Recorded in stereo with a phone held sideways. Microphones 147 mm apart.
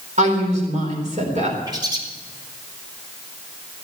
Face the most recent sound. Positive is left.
turn(degrees=-30)  # may be behind; listen again after turning